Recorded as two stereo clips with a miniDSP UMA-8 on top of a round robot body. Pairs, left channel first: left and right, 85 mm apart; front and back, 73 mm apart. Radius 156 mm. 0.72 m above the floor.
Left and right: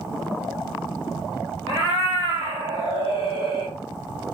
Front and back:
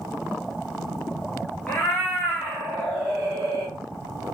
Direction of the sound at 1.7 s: 60° left.